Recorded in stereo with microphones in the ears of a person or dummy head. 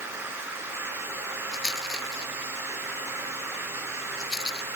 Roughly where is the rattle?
Centre.